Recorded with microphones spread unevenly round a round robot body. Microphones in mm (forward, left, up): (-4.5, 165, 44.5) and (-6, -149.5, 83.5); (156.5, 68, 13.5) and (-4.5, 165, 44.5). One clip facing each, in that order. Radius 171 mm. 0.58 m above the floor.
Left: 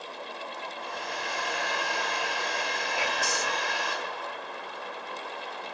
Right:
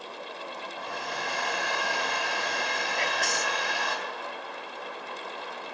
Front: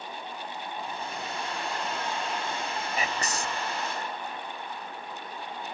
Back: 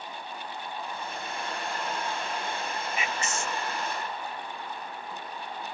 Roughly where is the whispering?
Ahead.